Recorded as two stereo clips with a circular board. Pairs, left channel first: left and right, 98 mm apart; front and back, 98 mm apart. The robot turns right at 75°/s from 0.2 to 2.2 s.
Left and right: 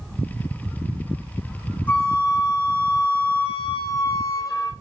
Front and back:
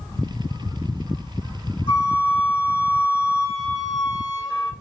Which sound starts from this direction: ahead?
A flute, at 1.9 s.